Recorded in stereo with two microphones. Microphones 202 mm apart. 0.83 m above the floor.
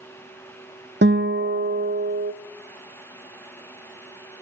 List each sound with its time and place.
1.0 s a guitar: 60° right (ahead or behind), 0.5 m